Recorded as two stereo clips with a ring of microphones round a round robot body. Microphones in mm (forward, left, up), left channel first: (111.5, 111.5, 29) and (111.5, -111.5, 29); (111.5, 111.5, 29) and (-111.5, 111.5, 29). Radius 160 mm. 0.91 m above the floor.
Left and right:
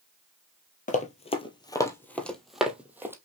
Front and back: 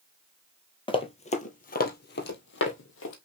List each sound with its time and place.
0.9 s running footsteps: 55° left, 1.1 m; by 3.1 s 10° right, 1.5 m